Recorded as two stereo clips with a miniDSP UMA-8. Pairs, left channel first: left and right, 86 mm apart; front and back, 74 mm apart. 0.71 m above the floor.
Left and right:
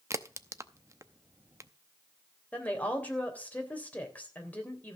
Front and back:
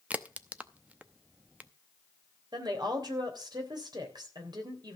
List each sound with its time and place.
0.1 s a crack: 120° right, 0.7 m
2.5 s a woman speaking: 160° left, 3 m